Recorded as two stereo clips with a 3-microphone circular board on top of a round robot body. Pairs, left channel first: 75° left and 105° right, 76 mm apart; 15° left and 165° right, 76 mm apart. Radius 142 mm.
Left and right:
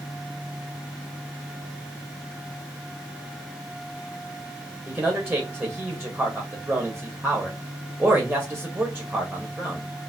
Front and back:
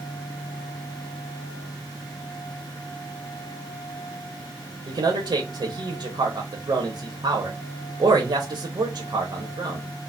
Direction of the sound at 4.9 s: Straight behind.